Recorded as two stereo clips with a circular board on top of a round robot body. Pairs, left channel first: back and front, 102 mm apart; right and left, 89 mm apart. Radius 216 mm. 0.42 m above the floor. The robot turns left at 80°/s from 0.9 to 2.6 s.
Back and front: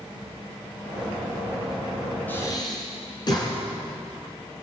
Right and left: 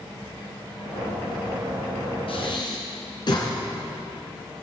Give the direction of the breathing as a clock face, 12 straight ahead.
4 o'clock.